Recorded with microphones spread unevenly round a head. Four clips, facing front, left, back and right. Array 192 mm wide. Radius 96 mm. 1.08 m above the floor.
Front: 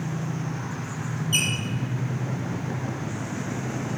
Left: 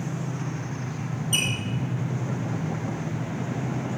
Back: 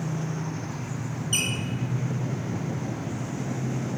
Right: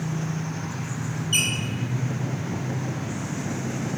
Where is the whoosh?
I don't hear a whoosh.